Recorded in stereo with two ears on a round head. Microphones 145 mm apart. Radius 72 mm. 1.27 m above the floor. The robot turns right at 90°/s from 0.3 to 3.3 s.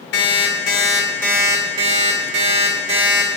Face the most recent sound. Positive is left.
turn(degrees=-5)